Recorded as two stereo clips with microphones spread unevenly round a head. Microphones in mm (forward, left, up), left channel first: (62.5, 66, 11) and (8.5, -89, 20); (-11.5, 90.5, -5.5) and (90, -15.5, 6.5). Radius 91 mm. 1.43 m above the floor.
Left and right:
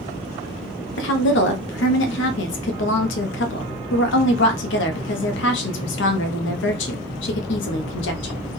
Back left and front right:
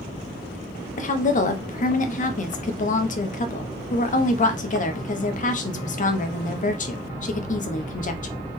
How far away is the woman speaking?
About 0.7 m.